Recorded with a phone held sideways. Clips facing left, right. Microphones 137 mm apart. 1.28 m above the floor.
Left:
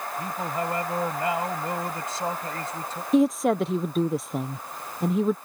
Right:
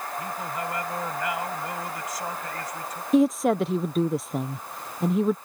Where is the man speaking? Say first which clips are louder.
Left 4 dB; 30° left (ahead or behind).